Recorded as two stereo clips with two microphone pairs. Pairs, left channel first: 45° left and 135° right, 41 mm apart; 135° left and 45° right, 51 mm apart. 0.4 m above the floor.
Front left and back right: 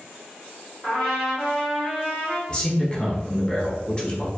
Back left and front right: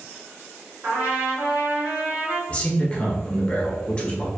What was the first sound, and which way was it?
A trumpet, 15° right.